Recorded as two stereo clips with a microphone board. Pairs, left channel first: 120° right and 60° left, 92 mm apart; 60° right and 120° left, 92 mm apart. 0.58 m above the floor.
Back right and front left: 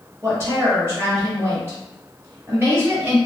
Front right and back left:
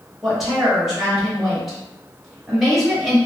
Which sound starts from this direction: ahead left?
A woman speaking, at 0.2 s.